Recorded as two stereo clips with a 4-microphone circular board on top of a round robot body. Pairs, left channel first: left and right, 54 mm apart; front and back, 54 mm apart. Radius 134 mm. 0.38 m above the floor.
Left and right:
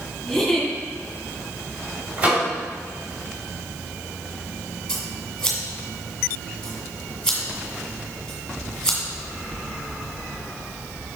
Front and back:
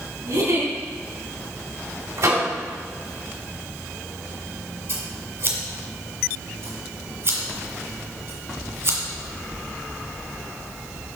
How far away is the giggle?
About 2.5 m.